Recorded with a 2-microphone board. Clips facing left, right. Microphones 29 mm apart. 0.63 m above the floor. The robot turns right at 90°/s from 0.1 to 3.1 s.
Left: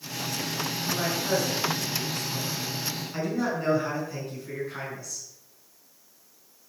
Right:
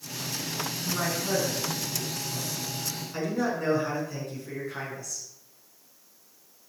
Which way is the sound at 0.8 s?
35° right.